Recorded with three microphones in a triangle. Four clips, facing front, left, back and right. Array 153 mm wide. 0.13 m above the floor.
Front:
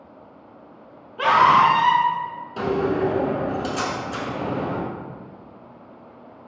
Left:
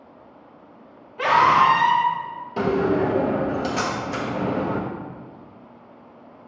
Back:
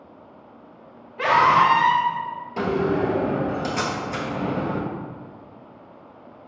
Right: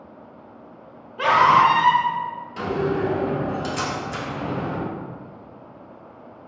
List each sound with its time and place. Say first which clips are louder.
1.2 s a scream: right 1 dB, front 2 dB; 30° right, 1.3 m
2.6 s a door slam: left 3 dB, even; 100° left, 1.3 m